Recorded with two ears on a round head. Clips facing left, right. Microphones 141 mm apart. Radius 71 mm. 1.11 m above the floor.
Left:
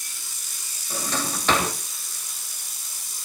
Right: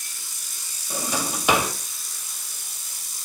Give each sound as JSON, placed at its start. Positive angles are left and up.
{"t": 0.9, "sound": "a drawer", "side_deg": -10, "distance_m": 3.0}